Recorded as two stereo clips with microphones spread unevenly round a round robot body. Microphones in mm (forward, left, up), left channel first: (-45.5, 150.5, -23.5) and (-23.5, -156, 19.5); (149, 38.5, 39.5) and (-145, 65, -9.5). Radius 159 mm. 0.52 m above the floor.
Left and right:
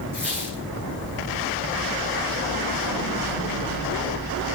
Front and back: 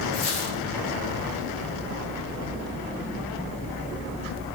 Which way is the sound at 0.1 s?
5° left.